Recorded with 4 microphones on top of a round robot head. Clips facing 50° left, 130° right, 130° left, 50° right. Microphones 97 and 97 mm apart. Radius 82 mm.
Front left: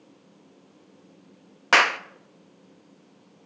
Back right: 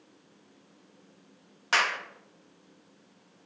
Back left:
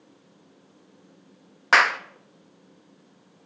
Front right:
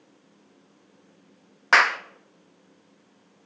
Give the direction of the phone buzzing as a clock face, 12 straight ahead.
No phone buzzing in this recording.